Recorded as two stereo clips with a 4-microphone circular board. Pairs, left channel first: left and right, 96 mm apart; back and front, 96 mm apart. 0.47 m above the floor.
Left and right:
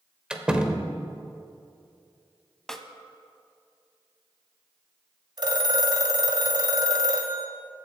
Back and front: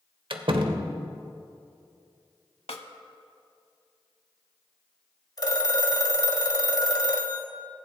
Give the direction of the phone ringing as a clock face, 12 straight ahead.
4 o'clock.